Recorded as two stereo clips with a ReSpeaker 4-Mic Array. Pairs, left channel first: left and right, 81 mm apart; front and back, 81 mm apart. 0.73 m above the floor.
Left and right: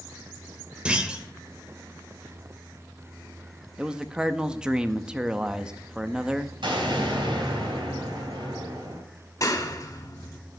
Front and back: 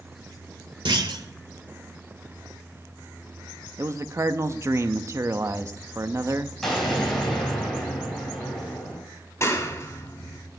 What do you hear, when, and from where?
0.8 s a clunk: 165° right, 1.0 m
3.8 s a man speaking: 160° right, 0.6 m
6.6 s an explosion: 85° right, 4 m
9.4 s a clap: 50° left, 1.7 m